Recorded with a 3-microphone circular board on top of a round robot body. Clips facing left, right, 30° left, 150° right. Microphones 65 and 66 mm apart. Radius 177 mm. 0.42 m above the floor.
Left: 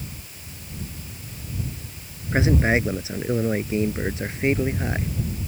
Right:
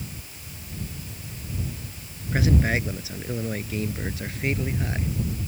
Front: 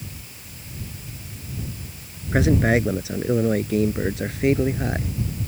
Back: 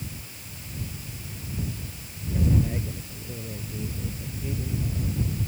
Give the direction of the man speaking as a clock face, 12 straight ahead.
11 o'clock.